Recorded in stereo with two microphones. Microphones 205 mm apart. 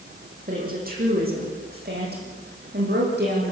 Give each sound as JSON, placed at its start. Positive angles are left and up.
{"t": 0.5, "sound": "a woman speaking", "side_deg": -40, "distance_m": 9.5}